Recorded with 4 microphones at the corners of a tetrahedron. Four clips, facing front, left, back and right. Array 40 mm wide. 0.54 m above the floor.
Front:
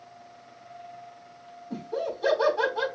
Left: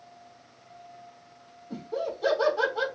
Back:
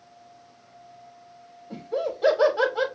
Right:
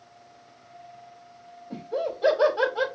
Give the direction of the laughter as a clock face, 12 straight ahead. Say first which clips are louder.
Right 3 dB, back 3 dB; 5 o'clock.